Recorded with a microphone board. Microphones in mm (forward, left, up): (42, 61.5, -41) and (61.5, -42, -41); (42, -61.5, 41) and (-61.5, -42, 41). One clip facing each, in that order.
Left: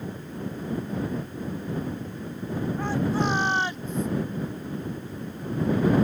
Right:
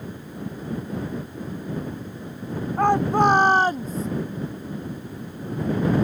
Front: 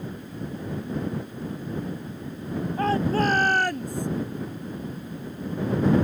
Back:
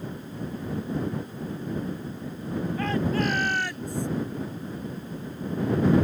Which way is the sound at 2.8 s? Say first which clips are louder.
Right 9 dB, front 4 dB; 65° right.